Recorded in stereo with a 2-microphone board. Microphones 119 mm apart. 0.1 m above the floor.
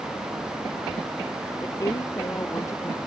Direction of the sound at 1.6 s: 25° left (ahead or behind).